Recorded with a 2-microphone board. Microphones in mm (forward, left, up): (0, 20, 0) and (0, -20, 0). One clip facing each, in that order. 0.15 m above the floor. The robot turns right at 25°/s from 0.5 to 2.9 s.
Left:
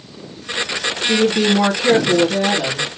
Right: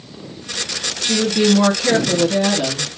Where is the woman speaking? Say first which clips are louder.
Left 1 dB; 165° left, 2.5 m; by 2.9 s 150° right, 2.5 m.